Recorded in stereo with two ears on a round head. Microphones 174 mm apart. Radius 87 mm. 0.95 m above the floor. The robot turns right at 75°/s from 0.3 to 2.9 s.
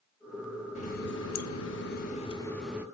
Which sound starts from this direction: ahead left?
A running tap, at 0.8 s.